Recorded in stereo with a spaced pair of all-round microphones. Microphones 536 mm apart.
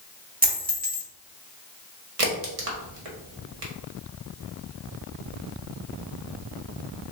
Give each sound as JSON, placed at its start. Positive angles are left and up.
{"t": 0.4, "sound": "a dropped coin", "side_deg": -15, "distance_m": 0.6}
{"t": 2.2, "sound": "a crack", "side_deg": -85, "distance_m": 0.8}